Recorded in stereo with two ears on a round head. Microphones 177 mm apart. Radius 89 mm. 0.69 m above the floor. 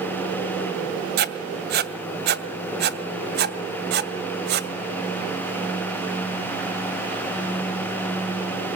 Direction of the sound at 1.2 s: 55° right (ahead or behind).